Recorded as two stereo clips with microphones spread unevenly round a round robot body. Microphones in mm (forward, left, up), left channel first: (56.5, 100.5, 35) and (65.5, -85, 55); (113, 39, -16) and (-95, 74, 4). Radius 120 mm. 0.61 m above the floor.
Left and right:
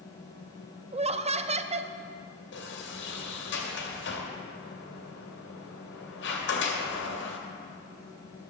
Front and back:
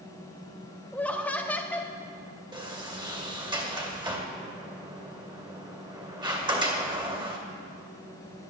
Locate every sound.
0.9 s laughter: 75° right, 0.6 m
2.5 s a sliding door: 100° left, 2 m